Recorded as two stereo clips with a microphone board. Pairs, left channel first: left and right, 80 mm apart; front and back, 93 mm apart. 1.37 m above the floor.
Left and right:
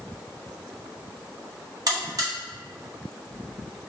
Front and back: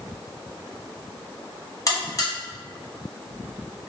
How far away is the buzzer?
About 1.7 m.